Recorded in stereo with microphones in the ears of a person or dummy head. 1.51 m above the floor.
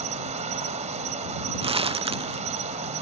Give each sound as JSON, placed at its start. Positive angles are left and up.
{"t": 0.0, "sound": "an insect", "side_deg": -30}
{"t": 1.6, "sound": "crumpling", "side_deg": -35}